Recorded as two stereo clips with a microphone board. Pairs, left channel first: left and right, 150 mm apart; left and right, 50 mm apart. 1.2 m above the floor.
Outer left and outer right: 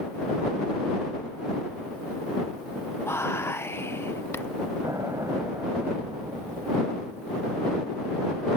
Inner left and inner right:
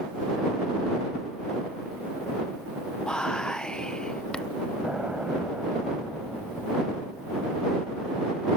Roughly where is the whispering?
Centre.